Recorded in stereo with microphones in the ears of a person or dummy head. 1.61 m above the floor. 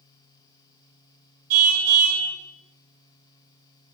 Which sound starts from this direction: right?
A car horn, at 1.5 s.